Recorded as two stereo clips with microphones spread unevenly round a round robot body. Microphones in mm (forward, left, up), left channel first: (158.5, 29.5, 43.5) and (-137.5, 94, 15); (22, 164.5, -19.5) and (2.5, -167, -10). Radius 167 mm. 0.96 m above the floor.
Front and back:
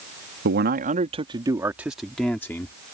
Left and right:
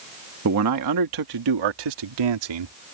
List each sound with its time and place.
0.5 s a man speaking: 140° right; by 2.7 s 95° right